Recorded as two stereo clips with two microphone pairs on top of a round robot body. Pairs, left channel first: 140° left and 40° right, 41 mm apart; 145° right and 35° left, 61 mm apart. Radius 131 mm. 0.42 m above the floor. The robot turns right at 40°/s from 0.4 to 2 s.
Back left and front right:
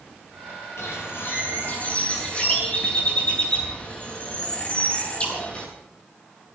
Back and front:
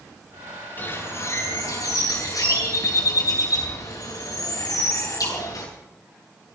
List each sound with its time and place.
0.8 s a bird: 155° left, 7.5 m; by 5.7 s 155° right, 7.5 m